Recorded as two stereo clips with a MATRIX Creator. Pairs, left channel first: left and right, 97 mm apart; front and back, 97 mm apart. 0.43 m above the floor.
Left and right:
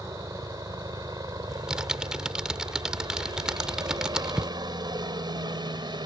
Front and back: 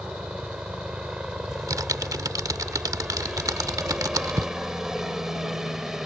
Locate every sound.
0.0 s a helicopter: 105° right; by 6.0 s 95° right
1.5 s typing on a keyboard: 165° right